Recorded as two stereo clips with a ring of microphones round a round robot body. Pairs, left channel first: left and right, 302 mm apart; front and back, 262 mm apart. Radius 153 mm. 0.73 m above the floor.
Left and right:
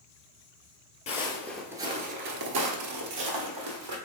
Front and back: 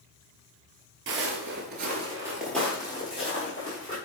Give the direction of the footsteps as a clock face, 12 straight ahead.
7 o'clock.